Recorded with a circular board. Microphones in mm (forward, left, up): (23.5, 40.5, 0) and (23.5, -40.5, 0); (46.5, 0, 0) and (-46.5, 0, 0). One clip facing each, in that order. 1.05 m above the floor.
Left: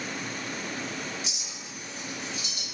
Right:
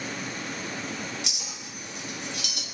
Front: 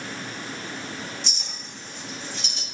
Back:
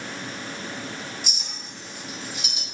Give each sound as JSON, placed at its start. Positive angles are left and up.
{"t": 1.2, "sound": "a clink", "azimuth_deg": -100, "distance_m": 1.0}